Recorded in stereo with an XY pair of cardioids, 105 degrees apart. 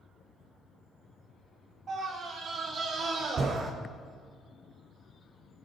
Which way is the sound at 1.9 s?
50° right.